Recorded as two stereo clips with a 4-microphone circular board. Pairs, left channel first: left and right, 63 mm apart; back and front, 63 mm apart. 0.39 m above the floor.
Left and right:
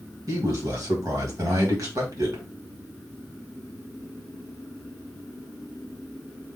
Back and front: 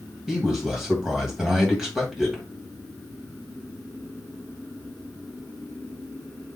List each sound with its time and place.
0.3 s a man speaking: 80° right, 2.0 m